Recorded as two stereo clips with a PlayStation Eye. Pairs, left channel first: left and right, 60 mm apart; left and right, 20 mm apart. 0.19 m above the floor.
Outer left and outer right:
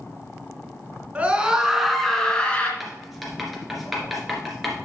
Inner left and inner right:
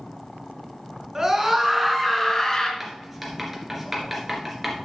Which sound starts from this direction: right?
A scream, at 1.1 s.